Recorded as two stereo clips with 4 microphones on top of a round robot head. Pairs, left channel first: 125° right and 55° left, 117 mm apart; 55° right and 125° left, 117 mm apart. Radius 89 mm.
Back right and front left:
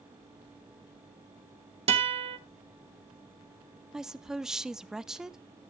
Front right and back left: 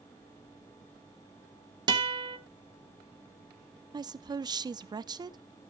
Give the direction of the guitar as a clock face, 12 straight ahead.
9 o'clock.